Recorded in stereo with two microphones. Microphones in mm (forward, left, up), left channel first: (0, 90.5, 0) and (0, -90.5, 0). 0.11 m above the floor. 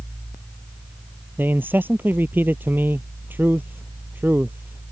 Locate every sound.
1.4 s a man speaking: 10° right (ahead or behind)